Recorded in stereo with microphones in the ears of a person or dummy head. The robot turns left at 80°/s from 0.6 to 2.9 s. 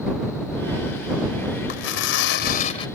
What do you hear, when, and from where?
1.7 s tearing paper: 130° left; by 2.9 s 35° left